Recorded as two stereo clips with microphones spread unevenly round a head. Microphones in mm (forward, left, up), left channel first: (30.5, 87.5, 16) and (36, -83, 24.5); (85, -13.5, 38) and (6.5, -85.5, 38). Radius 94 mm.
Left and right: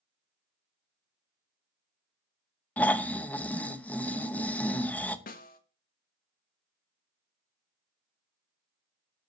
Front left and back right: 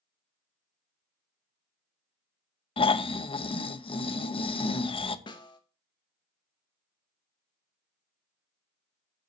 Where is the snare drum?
80° left, 1.2 m.